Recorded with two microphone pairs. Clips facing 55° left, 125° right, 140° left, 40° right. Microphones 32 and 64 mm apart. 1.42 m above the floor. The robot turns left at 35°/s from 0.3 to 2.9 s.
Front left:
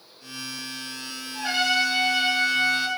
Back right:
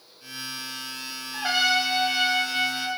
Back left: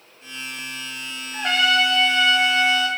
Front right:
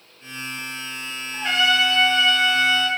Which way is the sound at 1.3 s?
170° left.